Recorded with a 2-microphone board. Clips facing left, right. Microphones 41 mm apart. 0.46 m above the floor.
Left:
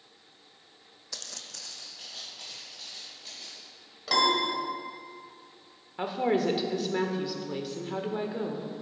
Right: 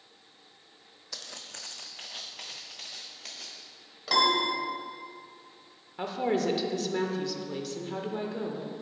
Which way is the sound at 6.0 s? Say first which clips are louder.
Left 2 dB; 15° left (ahead or behind).